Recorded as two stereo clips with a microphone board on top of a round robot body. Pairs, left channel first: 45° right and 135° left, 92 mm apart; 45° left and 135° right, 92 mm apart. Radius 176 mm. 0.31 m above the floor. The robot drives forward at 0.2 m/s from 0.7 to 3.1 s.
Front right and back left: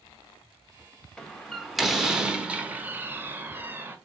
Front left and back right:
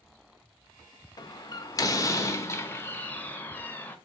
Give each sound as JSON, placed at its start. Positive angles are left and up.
{"t": 1.2, "sound": "a door slam", "azimuth_deg": 35, "distance_m": 0.8}